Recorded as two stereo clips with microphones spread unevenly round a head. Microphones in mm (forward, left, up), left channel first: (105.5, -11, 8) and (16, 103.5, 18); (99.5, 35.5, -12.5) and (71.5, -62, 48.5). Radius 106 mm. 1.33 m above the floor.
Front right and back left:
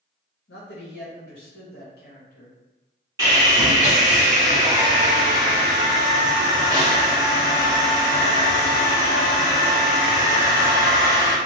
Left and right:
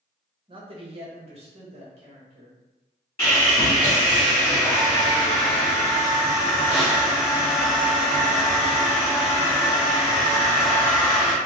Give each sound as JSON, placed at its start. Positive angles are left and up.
{"t": 0.5, "sound": "a man speaking", "azimuth_deg": -80, "distance_m": 1.0}
{"t": 3.2, "sound": "sawing", "azimuth_deg": -175, "distance_m": 1.4}